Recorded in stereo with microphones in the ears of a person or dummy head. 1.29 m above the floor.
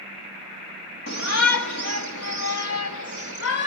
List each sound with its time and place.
1.1 s a shout: 70° left (ahead or behind), 2 m; by 3.7 s 85° left, 5 m